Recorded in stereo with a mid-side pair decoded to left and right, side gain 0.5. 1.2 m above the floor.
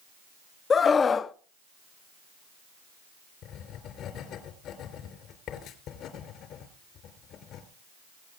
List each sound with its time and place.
0.7 s a scream: 40° left, 0.7 m
3.4 s writing: 70° left, 3.5 m